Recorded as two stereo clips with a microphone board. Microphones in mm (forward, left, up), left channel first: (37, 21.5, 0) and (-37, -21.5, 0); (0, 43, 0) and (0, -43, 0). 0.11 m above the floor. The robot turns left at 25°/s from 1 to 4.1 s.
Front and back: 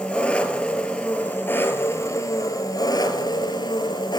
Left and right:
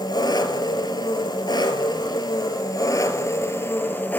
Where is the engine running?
105° left, 0.9 m; by 4.2 s 25° left, 0.9 m.